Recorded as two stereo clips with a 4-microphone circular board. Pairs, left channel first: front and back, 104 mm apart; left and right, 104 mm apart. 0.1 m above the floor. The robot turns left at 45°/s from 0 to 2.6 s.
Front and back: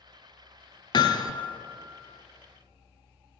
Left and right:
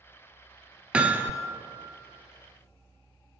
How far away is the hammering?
About 0.5 m.